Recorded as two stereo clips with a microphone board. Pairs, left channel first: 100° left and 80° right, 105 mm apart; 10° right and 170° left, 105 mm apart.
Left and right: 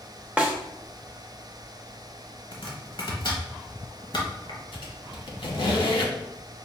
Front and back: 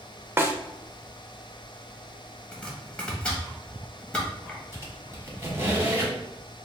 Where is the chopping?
65° left, 1.1 m.